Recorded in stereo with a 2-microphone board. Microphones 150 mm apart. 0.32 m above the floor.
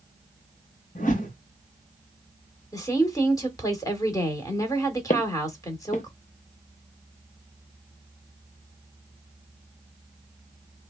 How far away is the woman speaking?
About 1.3 m.